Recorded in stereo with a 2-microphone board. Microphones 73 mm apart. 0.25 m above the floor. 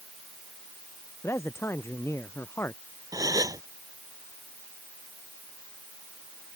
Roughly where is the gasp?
Right.